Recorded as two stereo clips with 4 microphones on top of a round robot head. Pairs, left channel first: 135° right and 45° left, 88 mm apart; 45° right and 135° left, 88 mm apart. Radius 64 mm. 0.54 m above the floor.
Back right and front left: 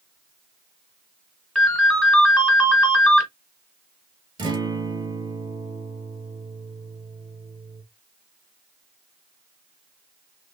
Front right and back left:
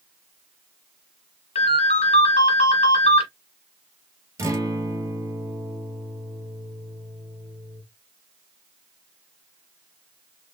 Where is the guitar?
80° left, 2.5 m.